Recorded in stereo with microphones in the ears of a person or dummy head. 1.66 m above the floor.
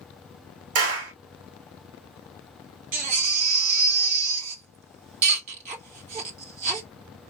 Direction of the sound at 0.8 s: 55° right (ahead or behind).